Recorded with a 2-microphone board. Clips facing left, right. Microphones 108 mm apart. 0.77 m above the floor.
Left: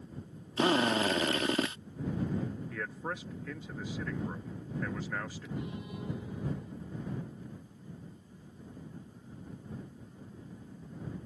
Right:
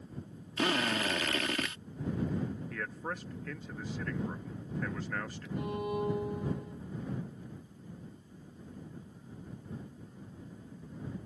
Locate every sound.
0.6 s a drill: 30° left (ahead or behind)
2.7 s a man speaking: 5° left (ahead or behind)
5.6 s a violin: 65° right (ahead or behind)